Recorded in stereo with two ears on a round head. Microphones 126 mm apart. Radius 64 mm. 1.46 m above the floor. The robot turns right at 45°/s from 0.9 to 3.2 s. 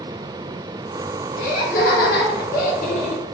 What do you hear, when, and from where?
1.4 s laughter: 50° left, 1.0 m; by 3.2 s 130° left, 1.0 m